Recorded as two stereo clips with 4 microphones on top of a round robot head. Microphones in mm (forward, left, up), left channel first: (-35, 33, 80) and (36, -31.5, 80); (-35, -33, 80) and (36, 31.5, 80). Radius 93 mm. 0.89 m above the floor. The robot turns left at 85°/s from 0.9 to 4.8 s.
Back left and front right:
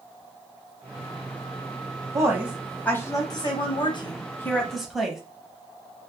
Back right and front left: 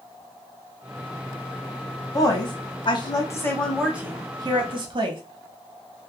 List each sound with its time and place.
2.1 s a woman speaking: 90° right, 0.8 m; by 5.2 s 45° left, 0.8 m